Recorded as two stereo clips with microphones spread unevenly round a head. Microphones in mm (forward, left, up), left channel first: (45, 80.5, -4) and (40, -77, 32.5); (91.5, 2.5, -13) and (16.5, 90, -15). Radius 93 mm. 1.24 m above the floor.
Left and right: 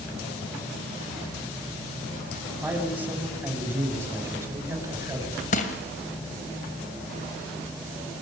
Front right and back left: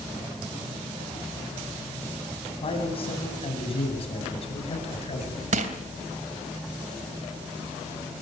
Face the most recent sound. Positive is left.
turn(degrees=145)